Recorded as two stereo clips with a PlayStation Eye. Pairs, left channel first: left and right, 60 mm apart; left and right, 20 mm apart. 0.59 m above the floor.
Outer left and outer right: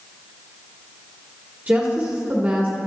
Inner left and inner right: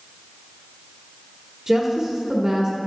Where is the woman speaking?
25° right (ahead or behind), 1.5 m.